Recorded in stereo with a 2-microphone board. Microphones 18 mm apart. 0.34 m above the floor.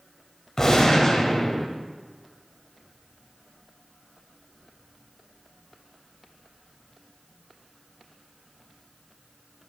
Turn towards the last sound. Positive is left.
turn(degrees=30)  # may be behind; listen again after turning